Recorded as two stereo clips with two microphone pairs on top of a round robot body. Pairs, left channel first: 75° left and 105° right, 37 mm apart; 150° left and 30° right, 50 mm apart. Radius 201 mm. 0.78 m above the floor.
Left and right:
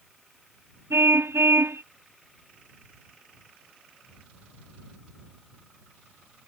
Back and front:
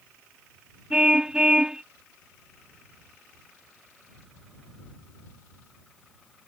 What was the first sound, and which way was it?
A car horn, 110° right.